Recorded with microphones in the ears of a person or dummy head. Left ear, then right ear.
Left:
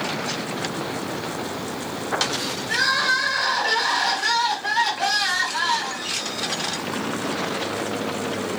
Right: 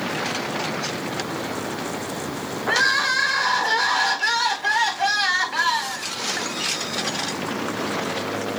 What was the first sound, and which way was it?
Crying, 10° right (ahead or behind).